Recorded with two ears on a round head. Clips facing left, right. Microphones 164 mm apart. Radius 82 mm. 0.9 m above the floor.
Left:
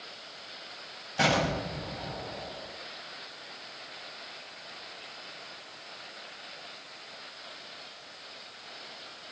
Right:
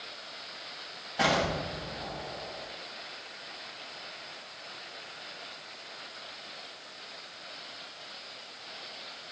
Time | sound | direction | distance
1.2 | an explosion | 40° left (ahead or behind) | 6 m